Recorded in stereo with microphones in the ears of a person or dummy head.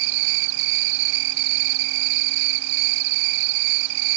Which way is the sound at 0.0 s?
65° right (ahead or behind).